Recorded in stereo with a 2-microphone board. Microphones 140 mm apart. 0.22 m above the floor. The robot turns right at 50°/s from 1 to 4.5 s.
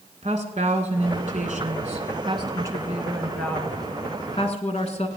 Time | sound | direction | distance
0.2 | a woman speaking | 110° right | 1.9 m